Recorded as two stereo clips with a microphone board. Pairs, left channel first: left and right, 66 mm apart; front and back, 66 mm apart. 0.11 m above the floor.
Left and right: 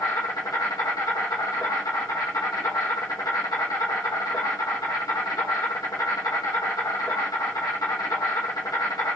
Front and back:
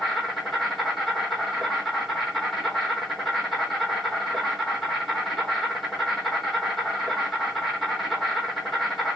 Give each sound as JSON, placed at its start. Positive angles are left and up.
{"t": 0.0, "sound": "an insect", "azimuth_deg": 90, "distance_m": 2.5}